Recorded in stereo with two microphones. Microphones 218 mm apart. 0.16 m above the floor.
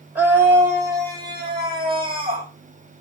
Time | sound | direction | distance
0.1 | a scream | 5° right (ahead or behind) | 5 m